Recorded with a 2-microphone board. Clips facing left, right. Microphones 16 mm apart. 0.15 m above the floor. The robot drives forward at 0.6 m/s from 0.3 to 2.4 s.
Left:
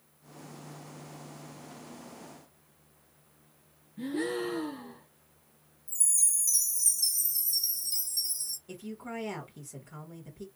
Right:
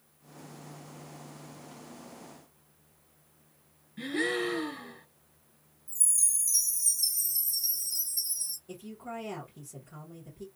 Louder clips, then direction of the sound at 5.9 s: Even; 35° left (ahead or behind).